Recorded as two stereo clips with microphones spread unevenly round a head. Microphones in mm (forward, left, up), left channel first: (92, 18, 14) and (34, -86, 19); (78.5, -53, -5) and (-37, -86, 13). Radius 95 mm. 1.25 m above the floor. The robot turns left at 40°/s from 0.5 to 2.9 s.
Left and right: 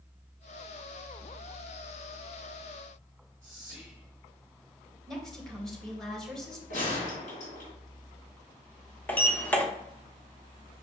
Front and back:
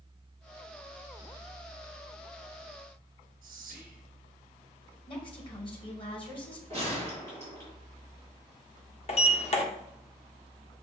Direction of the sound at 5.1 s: 25° right.